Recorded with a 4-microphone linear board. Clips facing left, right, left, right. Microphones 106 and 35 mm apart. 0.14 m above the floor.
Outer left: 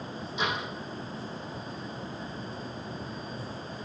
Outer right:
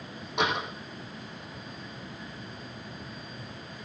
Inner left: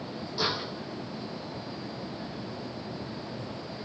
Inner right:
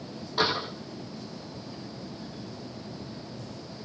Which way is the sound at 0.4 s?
70° right (ahead or behind).